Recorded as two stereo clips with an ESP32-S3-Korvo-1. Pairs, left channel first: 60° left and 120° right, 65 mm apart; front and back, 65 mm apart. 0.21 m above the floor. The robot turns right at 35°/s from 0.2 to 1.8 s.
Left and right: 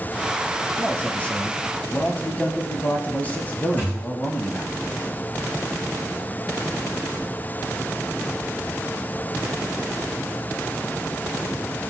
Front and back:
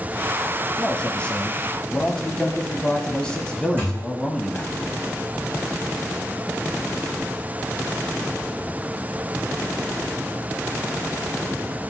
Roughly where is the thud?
Behind left.